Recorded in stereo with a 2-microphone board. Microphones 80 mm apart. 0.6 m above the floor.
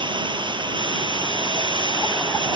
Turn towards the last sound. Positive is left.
turn(degrees=-90)